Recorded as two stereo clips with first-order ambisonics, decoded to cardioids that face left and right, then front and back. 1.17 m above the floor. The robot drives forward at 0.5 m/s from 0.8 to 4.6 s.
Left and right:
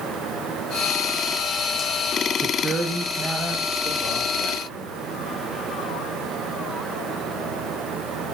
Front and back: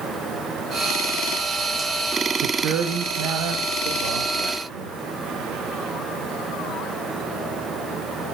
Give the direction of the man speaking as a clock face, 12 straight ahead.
6 o'clock.